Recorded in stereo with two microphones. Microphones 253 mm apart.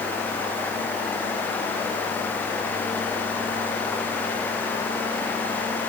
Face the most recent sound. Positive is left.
No sound to turn to.